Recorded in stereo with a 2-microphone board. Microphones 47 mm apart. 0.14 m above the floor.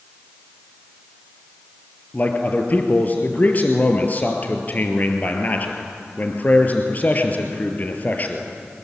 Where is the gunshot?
I don't hear a gunshot.